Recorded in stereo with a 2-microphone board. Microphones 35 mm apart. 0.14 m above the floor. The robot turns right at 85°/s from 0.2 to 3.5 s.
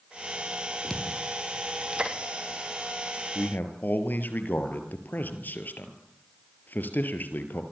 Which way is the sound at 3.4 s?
60° left (ahead or behind).